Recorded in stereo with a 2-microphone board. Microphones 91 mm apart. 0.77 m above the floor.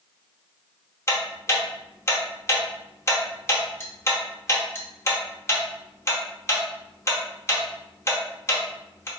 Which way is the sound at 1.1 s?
30° left (ahead or behind).